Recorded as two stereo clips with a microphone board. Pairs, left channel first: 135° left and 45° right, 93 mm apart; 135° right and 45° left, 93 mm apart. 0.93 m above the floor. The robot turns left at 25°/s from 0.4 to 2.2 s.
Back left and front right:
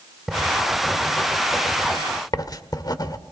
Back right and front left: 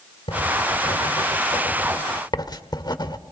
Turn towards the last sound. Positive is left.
turn(degrees=-175)